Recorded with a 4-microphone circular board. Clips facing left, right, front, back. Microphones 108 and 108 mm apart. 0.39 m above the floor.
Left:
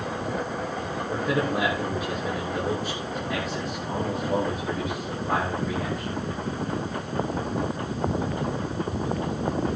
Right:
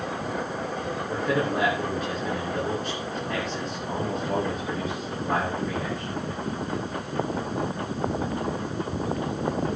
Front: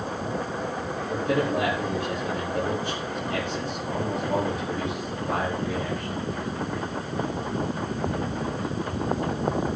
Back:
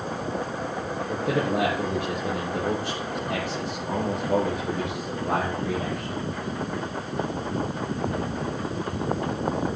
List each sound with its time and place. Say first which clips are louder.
1.1 s a man speaking: even, front 1 dB; 175° left, 6.5 m